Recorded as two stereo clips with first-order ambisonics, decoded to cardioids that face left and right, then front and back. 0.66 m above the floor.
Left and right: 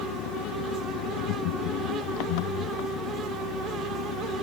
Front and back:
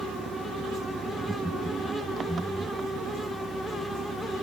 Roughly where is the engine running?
Left.